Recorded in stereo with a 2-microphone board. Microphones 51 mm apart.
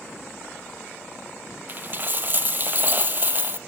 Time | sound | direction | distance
1.7 | a dropped coin | 40° right (ahead or behind) | 0.6 m